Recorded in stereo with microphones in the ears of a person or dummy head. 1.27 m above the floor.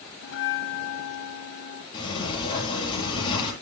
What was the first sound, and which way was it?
A bell, 65° left (ahead or behind).